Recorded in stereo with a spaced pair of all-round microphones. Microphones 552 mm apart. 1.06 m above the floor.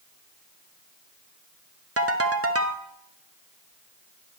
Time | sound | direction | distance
2.0 | a ringtone | 25° right (ahead or behind) | 0.6 m